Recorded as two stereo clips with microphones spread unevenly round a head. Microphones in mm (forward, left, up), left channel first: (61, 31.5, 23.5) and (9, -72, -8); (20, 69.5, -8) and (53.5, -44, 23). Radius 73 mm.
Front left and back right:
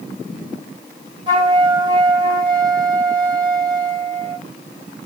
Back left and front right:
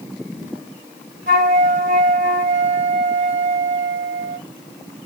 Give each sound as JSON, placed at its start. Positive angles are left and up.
{"t": 1.3, "sound": "a flute", "azimuth_deg": -65, "distance_m": 2.0}